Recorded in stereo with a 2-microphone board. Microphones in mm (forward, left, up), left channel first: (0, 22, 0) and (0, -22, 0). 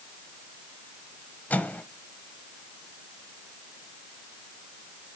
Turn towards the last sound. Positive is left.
turn(degrees=40)  # may be behind; listen again after turning